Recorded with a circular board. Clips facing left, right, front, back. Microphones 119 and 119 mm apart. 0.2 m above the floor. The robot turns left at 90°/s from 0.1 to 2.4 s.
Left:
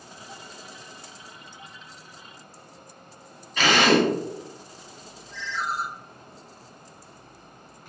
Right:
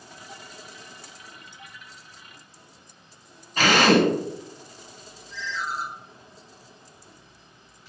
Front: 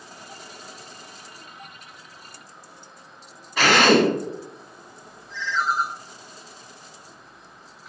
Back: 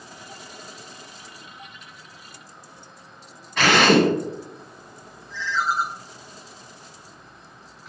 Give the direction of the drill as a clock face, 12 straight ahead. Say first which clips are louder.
Right 1 dB, even; 3 o'clock.